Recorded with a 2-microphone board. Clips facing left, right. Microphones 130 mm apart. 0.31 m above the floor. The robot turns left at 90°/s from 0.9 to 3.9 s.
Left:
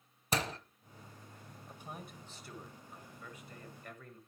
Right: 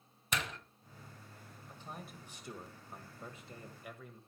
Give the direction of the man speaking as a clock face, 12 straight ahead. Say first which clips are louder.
Even; 11 o'clock.